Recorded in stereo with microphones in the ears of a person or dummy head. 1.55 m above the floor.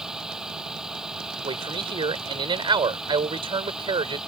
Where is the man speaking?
25° right (ahead or behind).